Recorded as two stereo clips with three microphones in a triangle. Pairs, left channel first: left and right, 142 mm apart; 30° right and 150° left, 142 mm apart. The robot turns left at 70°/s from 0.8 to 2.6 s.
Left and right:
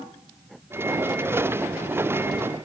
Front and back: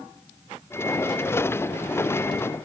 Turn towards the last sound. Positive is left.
No sound to turn to.